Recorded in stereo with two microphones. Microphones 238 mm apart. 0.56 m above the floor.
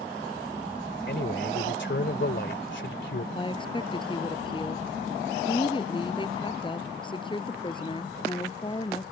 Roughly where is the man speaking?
Left.